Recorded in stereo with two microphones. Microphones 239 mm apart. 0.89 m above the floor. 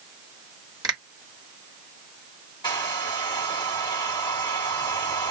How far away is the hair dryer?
About 1.2 m.